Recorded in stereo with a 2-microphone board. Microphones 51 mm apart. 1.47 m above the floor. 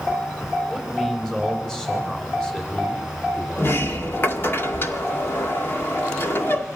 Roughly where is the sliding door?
Left.